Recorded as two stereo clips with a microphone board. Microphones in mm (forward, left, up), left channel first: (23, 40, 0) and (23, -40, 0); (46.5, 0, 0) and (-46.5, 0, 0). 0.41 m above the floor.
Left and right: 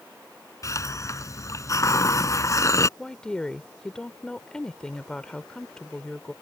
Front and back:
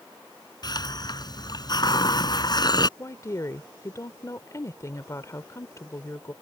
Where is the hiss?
40° left.